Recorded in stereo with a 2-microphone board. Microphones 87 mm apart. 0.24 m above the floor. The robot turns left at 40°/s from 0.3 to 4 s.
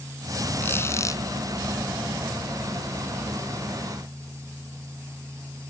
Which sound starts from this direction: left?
A squeak, at 0.6 s.